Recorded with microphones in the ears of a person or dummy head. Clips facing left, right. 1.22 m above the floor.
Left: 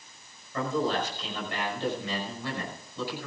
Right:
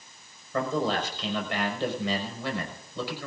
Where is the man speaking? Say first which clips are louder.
Right 1 dB; 60° right (ahead or behind), 5.5 m.